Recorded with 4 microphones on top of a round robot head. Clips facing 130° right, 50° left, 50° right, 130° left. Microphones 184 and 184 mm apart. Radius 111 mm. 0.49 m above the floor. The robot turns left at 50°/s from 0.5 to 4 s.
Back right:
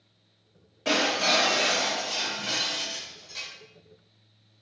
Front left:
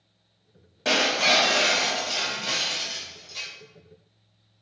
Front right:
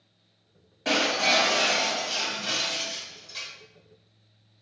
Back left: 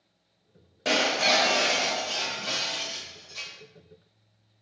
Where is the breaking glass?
90° left, 1.3 m; by 3.5 s 40° right, 1.3 m.